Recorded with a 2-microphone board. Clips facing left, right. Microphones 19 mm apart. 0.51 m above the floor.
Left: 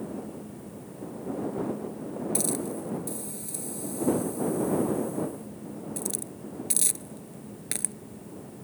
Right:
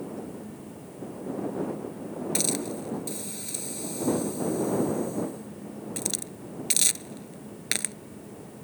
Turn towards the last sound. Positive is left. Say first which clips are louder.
# right 3 dB
turn(degrees=-40)  # may be behind; listen again after turning